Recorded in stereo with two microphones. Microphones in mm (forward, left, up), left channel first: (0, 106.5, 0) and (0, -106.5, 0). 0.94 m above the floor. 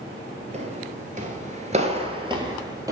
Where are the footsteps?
30° right (ahead or behind), 1.3 m; by 2.9 s 15° right (ahead or behind), 1.8 m.